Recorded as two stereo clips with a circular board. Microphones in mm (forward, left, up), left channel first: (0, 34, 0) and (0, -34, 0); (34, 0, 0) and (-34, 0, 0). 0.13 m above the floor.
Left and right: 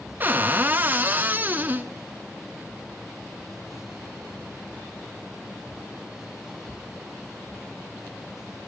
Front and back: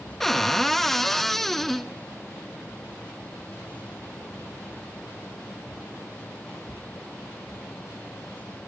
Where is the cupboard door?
80° right, 1.1 m.